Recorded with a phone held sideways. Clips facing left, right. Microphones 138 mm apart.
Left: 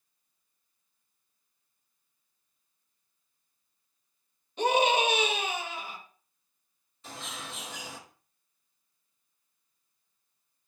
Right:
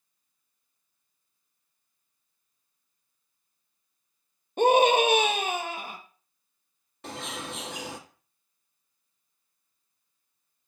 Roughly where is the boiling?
I don't hear boiling.